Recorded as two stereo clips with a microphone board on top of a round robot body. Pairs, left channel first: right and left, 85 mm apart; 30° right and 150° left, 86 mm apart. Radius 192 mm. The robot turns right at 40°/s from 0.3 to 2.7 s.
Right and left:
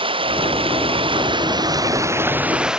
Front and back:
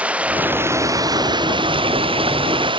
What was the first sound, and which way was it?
Running water, 75° left.